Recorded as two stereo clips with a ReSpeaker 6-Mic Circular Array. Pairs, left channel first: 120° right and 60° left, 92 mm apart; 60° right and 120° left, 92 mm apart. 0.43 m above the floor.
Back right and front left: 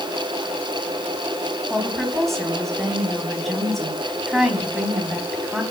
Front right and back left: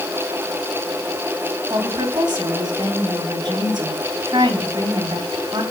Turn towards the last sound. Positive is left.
turn(degrees=150)